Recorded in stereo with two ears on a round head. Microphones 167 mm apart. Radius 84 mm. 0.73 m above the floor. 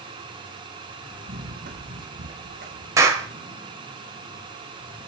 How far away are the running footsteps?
About 2.5 m.